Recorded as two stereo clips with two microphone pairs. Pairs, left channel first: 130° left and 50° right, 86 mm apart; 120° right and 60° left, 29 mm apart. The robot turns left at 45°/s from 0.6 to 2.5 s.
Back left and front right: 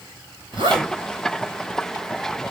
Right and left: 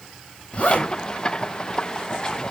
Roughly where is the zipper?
Right.